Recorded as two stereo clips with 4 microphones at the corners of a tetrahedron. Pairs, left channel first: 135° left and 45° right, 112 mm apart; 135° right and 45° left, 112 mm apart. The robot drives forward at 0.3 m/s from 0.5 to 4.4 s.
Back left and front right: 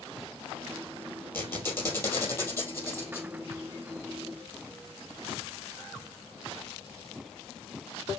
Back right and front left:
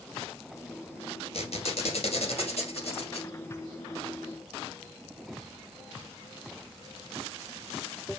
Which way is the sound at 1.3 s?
155° right.